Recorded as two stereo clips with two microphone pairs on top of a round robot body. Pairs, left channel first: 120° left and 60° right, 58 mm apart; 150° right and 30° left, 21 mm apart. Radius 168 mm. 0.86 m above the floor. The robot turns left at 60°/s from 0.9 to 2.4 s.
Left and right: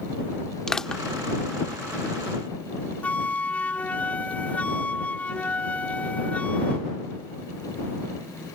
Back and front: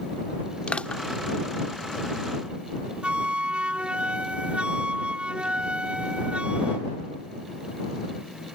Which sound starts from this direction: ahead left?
A flute, at 3.0 s.